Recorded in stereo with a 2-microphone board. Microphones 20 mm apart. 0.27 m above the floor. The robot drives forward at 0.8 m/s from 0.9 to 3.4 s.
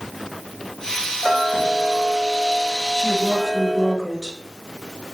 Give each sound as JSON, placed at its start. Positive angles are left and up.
{"t": 1.2, "sound": "ticking", "side_deg": -10, "distance_m": 1.0}
{"t": 3.0, "sound": "a woman speaking", "side_deg": 5, "distance_m": 4.0}